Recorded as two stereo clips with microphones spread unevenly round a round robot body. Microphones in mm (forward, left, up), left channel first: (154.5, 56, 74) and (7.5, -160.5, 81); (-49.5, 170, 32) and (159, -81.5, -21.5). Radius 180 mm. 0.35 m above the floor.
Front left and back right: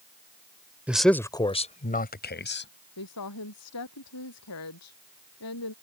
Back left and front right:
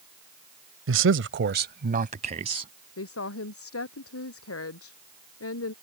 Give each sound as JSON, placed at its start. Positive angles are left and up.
{"t": 0.9, "sound": "a man speaking", "azimuth_deg": -40}
{"t": 3.0, "sound": "a woman speaking", "azimuth_deg": 85}